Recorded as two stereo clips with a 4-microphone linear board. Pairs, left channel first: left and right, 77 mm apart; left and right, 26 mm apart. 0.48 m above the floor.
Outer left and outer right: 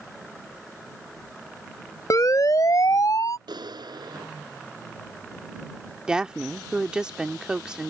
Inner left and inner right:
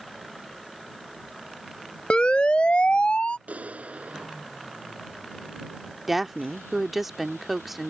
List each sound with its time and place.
2.1 s a siren: 50° left (ahead or behind); by 3.4 s 55° left (ahead or behind)
3.5 s a clap: 75° right (ahead or behind)
6.1 s a woman speaking: 10° right (ahead or behind)